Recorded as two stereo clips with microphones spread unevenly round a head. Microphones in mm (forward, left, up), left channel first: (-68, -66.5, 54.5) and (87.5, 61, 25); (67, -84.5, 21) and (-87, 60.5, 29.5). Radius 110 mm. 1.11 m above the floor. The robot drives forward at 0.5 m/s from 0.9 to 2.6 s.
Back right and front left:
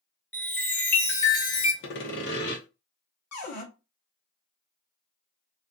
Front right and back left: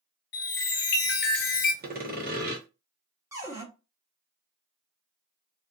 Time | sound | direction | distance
0.3 | a chime | 55° right | 1.1 m
1.8 | sawing | 175° right | 0.8 m
3.3 | a cupboard door | 145° right | 1.0 m